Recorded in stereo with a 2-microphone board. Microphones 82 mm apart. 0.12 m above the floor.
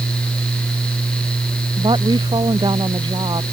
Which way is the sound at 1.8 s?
70° right (ahead or behind).